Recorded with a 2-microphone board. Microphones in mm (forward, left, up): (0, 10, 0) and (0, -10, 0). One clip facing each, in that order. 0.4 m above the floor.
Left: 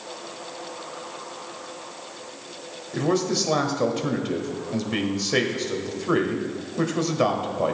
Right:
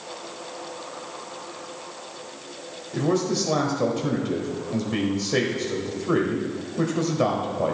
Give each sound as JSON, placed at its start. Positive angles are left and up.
{"t": 2.9, "sound": "a man speaking", "side_deg": 20, "distance_m": 1.8}